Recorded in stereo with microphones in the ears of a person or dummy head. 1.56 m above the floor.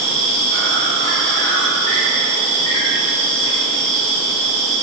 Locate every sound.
0.0 s an insect: 25° left (ahead or behind), 0.9 m